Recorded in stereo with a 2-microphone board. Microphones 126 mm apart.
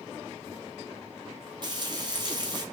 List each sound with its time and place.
1.6 s frying: 35° right (ahead or behind), 1.3 m